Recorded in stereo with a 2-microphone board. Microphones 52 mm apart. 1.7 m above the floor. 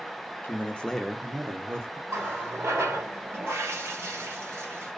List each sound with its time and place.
0.4 s a man speaking: 40° left (ahead or behind), 0.7 m; by 2.0 s 55° right (ahead or behind), 0.8 m
2.1 s a running tap: 50° right (ahead or behind), 1.1 m